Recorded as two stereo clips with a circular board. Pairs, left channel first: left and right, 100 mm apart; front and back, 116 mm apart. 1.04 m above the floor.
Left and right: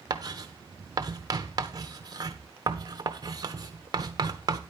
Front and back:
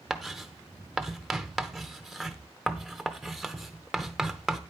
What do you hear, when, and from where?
0.1 s writing: 90° right, 0.9 m